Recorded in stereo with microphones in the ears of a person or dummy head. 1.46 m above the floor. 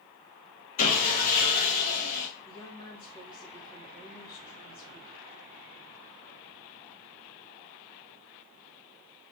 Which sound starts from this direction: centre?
A woman speaking, at 2.5 s.